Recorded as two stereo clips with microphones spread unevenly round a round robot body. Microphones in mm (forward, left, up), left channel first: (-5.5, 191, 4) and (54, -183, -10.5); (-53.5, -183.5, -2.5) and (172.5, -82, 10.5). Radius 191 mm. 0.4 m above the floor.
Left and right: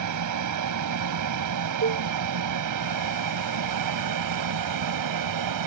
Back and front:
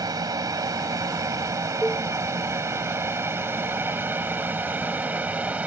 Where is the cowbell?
65° right.